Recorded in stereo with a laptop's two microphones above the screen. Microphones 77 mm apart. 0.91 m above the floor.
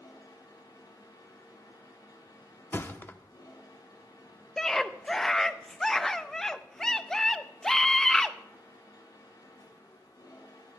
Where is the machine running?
65° left (ahead or behind), 5 m.